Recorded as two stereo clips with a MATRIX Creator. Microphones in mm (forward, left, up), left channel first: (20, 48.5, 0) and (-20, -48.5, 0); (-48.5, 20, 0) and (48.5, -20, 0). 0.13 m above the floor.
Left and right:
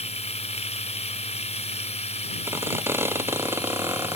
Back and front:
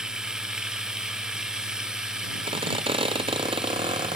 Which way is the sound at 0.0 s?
60° left.